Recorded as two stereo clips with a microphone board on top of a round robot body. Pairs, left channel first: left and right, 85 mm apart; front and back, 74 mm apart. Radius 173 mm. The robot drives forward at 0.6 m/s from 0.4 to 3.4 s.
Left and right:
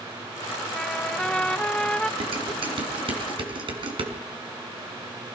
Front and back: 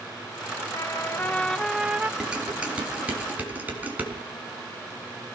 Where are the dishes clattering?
100° right, 4 m; by 4.1 s 110° right, 4 m.